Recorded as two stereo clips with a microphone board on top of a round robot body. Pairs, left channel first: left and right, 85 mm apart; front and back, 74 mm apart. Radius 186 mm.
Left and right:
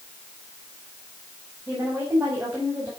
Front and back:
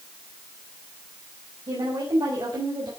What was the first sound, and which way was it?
A woman speaking, 160° right.